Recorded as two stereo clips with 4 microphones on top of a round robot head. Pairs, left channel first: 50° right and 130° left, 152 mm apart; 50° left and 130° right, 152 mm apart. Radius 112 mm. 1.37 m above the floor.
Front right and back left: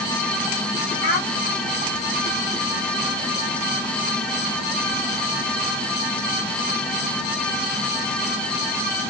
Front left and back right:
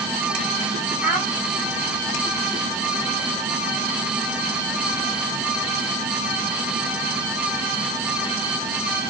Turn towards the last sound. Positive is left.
turn(degrees=-45)